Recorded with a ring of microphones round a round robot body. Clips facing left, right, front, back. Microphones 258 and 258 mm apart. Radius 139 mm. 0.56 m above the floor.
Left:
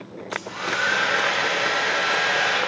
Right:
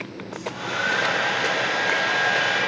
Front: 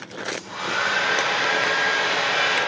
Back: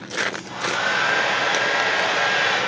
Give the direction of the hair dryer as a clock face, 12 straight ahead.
10 o'clock.